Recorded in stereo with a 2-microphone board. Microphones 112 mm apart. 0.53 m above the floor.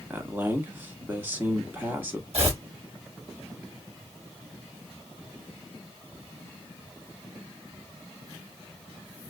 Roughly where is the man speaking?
Centre.